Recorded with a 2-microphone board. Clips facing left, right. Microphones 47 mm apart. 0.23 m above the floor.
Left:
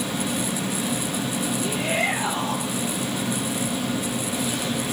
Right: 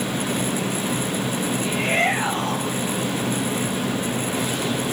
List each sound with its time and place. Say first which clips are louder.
1.6 s a shout: right 4 dB; 65° right (ahead or behind), 6.5 m